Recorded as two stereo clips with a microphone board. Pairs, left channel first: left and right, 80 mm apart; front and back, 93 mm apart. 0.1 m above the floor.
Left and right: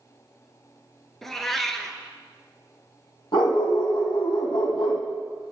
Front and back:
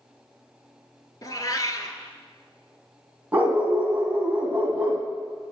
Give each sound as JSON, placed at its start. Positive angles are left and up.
{"t": 1.2, "sound": "a cat meowing", "azimuth_deg": 5, "distance_m": 0.5}
{"t": 3.3, "sound": "a dog barking", "azimuth_deg": 105, "distance_m": 1.5}